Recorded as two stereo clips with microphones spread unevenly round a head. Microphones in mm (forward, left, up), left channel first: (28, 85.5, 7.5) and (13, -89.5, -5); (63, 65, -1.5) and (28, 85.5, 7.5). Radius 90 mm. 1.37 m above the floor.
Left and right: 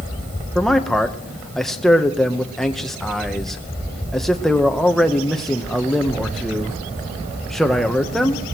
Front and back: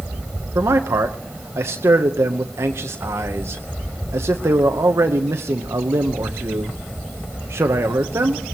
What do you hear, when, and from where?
0.6 s a man speaking: 175° left, 0.8 m